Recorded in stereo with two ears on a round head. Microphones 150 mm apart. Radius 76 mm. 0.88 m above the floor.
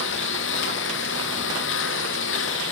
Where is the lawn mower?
90° left; by 2.7 s 85° left.